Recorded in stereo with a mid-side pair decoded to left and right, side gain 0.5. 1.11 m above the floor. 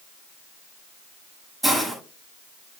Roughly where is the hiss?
Ahead.